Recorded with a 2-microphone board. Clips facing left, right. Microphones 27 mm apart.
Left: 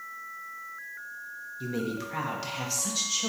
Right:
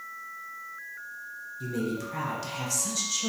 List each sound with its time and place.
1.6 s a woman speaking: 25° left (ahead or behind), 0.7 m